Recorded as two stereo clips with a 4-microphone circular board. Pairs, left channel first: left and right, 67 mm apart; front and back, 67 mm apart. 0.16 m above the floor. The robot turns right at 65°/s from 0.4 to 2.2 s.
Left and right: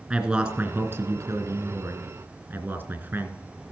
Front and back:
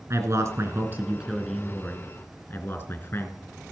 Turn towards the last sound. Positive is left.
turn(degrees=-50)